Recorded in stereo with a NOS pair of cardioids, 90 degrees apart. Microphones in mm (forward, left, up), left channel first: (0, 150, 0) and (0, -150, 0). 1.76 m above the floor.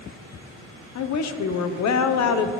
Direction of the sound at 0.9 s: 65° left.